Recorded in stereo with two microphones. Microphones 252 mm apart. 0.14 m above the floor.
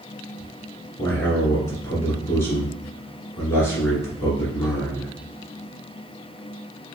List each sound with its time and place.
1.0 s a man speaking: 10° left (ahead or behind), 1.4 m